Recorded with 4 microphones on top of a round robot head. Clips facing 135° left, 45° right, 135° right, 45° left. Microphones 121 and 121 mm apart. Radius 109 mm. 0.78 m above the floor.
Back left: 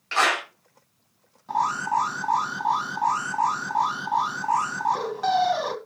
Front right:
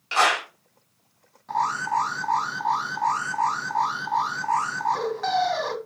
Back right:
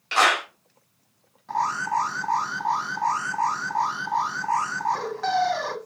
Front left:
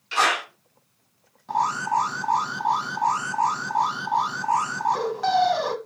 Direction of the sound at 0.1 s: 120° right.